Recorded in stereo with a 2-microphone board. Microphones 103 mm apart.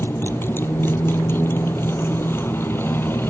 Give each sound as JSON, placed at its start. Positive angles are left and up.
{"t": 0.0, "sound": "a motorcycle", "side_deg": 20}